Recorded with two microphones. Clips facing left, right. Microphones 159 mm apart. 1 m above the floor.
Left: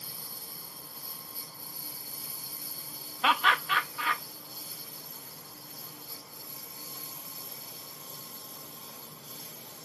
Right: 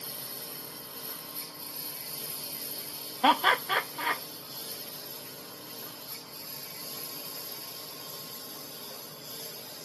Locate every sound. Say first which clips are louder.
0.0 s a lawn mower: right 5 dB; 75° right (ahead or behind); by 9.9 s 80° right
3.2 s laughter: right 3 dB; 40° right (ahead or behind)